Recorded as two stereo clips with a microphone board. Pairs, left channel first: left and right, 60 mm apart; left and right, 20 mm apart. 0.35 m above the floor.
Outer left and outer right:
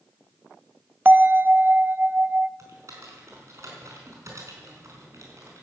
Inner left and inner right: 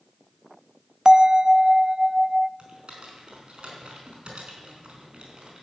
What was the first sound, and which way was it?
A bell, 35° right (ahead or behind).